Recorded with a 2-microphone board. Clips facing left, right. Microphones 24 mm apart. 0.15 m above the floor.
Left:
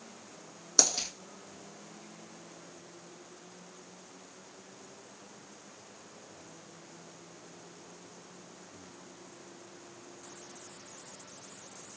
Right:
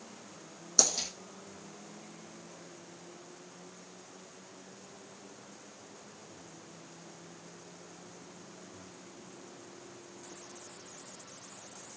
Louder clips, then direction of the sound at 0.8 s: Left 1 dB; 25° left (ahead or behind).